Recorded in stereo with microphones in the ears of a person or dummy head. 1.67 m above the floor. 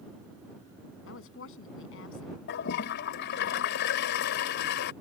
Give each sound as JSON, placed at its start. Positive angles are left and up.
{"t": 1.1, "sound": "a woman speaking", "side_deg": 75}
{"t": 2.5, "sound": "a toilet flushing", "side_deg": 55}